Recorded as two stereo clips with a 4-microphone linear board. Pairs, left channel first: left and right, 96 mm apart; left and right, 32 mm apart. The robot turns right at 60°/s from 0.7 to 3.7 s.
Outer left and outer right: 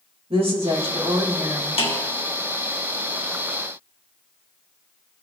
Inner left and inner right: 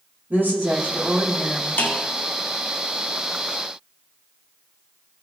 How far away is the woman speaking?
About 2 m.